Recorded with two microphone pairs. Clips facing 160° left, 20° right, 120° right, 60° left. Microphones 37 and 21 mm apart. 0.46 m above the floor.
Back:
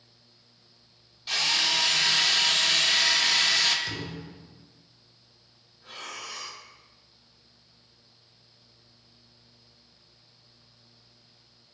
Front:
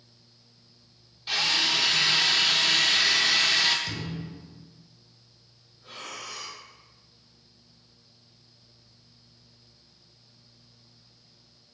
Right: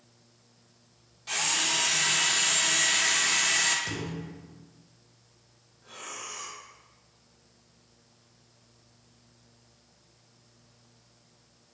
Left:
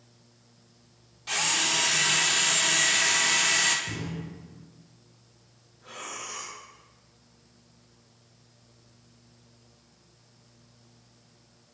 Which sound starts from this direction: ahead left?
A drill, at 1.3 s.